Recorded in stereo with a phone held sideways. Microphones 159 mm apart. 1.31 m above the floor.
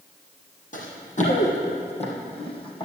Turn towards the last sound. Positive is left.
turn(degrees=30)  # may be behind; listen again after turning